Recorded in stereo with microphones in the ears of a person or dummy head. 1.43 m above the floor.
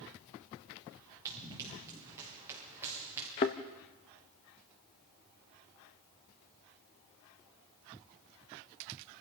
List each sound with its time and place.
1.2 s running footsteps: 15° right (ahead or behind), 7.5 m; by 3.3 s 10° right (ahead or behind), 8.5 m
3.4 s a thud: 20° left (ahead or behind), 0.8 m